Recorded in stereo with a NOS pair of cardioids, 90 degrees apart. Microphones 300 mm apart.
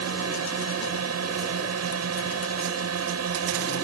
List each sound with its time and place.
0.0 s a drone: 55° right